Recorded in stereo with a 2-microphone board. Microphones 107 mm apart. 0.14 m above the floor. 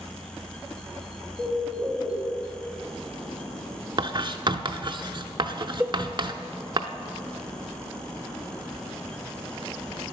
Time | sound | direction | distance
1.4 | a bird | 10° left (ahead or behind) | 2.5 m
4.0 | writing | 45° right (ahead or behind) | 0.5 m
5.8 | a cowbell | 15° right (ahead or behind) | 0.5 m